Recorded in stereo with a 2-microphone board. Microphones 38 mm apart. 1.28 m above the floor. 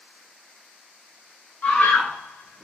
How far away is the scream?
About 1.0 m.